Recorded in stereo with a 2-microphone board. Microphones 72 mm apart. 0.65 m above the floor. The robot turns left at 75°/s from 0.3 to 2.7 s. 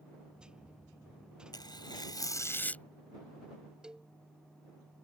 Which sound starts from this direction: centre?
A cowbell, at 3.8 s.